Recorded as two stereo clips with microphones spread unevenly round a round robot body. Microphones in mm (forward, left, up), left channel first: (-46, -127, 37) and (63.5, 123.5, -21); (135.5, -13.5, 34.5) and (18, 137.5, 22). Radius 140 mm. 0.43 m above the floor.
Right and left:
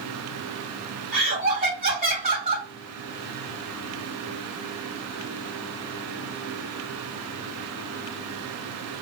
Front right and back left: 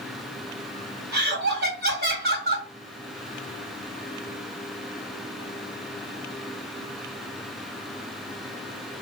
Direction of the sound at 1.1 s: 125° left.